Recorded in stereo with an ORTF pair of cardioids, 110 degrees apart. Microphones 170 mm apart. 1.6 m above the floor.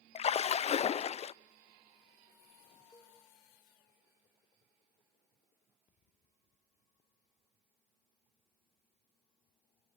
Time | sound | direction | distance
0.1 | a splash | 40° left | 0.6 m
2.9 | a cowbell | 20° left | 4 m